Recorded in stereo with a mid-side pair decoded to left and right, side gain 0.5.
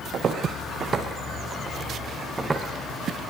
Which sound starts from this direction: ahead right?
Footsteps, at 0.1 s.